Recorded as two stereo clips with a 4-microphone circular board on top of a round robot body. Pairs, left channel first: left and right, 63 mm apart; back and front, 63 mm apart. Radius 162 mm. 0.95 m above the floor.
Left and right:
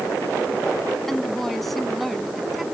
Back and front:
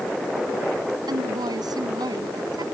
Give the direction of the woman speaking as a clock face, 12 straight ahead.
12 o'clock.